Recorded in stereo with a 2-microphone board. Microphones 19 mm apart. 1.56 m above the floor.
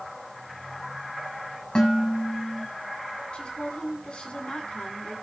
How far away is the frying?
No frying in this recording.